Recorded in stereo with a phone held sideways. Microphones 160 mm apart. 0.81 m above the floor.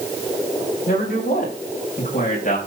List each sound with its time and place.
0.9 s a man speaking: 75° left (ahead or behind), 4.5 m; by 2.6 s 60° left (ahead or behind), 4.5 m